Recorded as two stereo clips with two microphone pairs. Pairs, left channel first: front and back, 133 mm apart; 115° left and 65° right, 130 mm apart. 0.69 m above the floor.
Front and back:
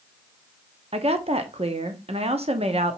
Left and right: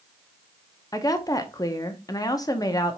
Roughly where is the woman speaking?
Behind.